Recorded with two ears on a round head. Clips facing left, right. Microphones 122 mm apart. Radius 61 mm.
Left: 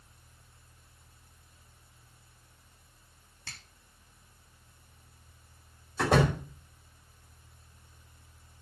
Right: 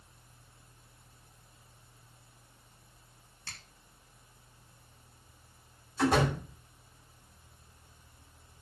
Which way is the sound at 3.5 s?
65° left (ahead or behind).